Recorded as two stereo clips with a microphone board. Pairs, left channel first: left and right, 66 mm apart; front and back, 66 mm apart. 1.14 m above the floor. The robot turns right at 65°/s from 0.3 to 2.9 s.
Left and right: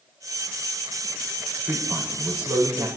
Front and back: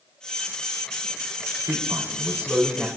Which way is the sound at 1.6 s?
165° right.